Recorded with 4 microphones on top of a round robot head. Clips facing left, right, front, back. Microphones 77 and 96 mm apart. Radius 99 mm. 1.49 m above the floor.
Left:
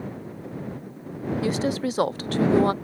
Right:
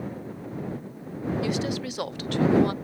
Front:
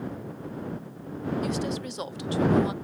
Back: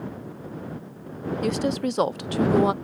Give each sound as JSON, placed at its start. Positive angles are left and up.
{"t": 1.4, "sound": "a woman speaking", "azimuth_deg": 145}